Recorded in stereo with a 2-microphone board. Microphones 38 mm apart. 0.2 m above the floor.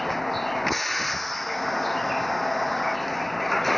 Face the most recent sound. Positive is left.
turn(degrees=0)  # may be behind; listen again after turning